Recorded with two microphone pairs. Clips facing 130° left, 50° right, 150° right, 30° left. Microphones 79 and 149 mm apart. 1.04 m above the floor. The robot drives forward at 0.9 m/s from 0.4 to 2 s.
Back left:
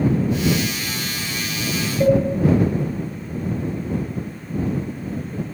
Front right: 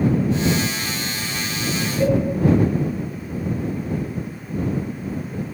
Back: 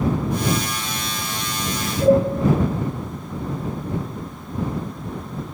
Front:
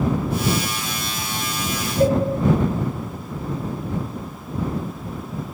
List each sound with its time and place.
2.0 s a cowbell: straight ahead, 10 m